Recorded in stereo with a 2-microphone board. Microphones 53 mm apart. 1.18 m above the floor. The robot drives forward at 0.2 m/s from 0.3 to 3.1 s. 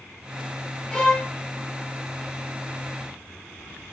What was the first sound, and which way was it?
A violin, 20° left (ahead or behind).